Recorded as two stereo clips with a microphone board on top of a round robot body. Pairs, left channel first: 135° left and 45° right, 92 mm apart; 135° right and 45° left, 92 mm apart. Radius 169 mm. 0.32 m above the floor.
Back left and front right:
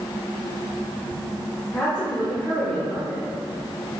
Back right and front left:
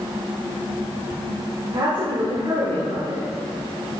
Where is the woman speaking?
55° left, 2 m.